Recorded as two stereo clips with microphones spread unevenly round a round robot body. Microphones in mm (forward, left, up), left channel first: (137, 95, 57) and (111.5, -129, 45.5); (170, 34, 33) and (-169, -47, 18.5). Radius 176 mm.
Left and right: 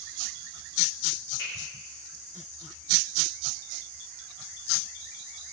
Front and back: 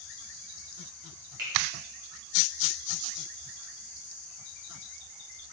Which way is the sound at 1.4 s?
130° left.